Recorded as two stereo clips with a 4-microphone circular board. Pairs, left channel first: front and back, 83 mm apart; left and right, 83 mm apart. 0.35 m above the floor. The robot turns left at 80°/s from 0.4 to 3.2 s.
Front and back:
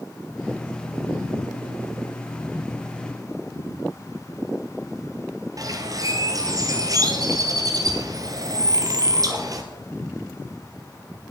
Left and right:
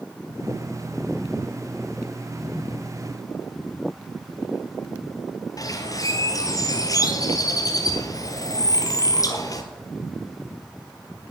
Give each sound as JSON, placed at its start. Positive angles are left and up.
{"t": 5.6, "sound": "a bird", "azimuth_deg": 135, "distance_m": 1.2}